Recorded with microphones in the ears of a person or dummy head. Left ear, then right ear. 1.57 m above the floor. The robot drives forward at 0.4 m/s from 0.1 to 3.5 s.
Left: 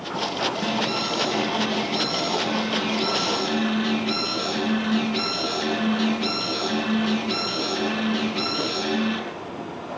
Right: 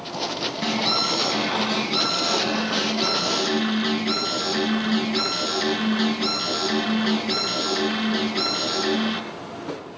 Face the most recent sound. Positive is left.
turn(degrees=-20)  # may be behind; listen again after turning